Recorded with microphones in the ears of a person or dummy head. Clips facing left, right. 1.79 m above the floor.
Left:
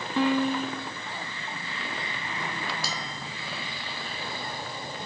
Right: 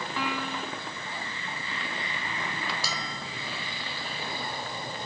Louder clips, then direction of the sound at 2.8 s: Even; 55° right (ahead or behind).